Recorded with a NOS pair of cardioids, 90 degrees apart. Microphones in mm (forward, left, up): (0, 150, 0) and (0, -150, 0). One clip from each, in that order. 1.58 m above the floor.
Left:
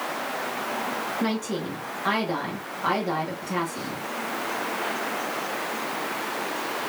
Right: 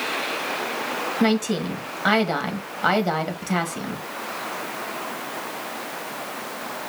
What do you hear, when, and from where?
1.2 s a woman speaking: 45° right, 1.8 m